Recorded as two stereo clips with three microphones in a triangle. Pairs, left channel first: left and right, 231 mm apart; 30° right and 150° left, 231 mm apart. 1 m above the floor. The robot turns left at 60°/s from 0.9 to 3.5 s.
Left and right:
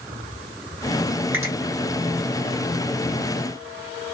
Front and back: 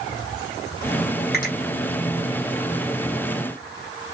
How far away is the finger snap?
About 1.3 m.